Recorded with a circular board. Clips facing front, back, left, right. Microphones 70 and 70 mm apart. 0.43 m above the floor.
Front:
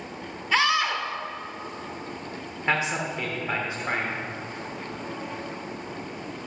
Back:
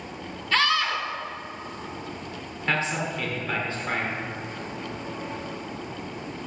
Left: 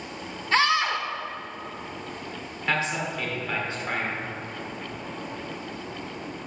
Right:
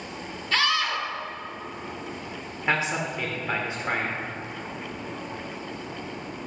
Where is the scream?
60° left, 0.8 m.